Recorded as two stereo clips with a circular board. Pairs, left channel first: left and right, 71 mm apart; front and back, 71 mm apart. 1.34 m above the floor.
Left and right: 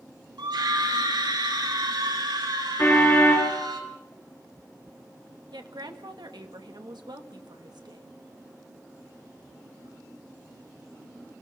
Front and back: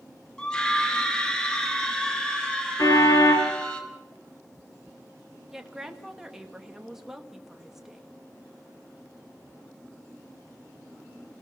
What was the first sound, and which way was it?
A scream, 80° right.